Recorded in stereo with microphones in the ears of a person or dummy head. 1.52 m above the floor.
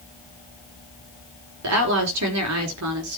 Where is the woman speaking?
85° right, 4.5 m; by 3.2 s 70° right (ahead or behind), 4 m.